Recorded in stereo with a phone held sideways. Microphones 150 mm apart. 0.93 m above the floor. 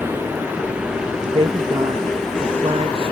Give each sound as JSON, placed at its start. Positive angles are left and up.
{"t": 0.0, "sound": "a vehicle", "side_deg": -10}
{"t": 1.3, "sound": "a woman speaking", "side_deg": -40}